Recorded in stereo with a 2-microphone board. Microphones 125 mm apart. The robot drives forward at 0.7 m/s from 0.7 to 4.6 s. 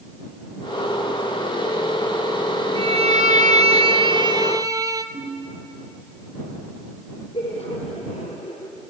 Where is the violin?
45° right (ahead or behind), 0.7 m; by 5.0 s 25° right (ahead or behind), 1.0 m.